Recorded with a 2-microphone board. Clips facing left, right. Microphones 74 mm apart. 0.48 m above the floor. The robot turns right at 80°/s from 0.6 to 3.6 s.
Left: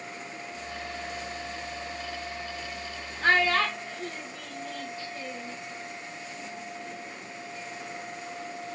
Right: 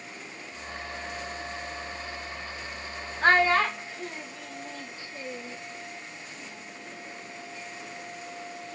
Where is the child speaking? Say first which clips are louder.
Right 2 dB; 45° right (ahead or behind), 0.8 m; by 5.6 s 20° right (ahead or behind), 0.8 m.